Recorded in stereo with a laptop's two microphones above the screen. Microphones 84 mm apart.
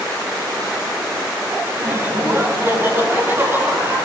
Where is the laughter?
30° right (ahead or behind), 8 m; by 4.0 s 25° right (ahead or behind), 10.5 m.